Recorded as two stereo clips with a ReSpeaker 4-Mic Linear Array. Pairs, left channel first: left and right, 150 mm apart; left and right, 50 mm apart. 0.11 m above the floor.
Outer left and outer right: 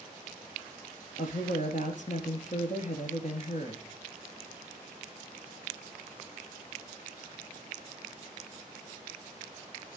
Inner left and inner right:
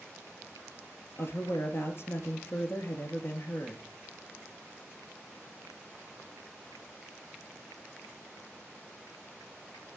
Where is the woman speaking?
55° left (ahead or behind), 2 m.